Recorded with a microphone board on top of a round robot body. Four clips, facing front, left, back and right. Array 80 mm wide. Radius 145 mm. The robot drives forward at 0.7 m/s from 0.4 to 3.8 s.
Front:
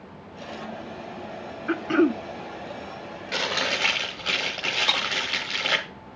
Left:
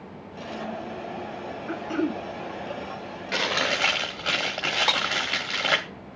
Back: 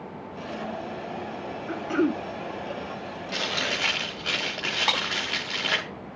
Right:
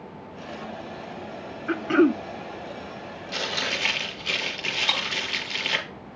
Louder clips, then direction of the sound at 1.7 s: Right 8 dB, front 4 dB; 40° right.